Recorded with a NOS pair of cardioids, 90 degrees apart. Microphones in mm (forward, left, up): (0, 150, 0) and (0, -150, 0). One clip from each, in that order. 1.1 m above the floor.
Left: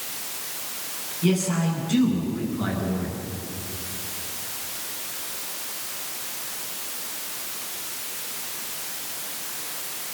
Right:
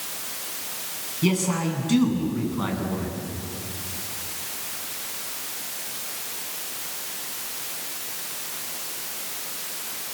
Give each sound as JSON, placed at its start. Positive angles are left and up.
{"t": 1.2, "sound": "a man speaking", "azimuth_deg": -45, "distance_m": 9.0}